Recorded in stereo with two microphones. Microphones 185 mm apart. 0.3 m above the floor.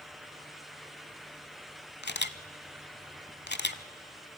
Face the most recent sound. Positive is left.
turn(degrees=65)  # may be behind; listen again after turning